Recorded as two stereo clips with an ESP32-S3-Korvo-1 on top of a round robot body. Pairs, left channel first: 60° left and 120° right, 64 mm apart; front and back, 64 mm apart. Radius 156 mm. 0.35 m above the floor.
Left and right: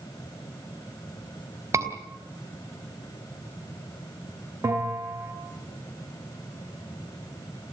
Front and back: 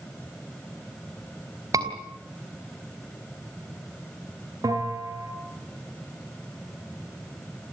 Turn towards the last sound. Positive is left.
turn(degrees=-155)